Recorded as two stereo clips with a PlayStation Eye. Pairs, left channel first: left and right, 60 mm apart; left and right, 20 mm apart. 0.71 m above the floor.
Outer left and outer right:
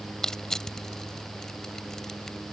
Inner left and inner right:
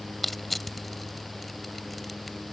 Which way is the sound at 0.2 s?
10° left (ahead or behind).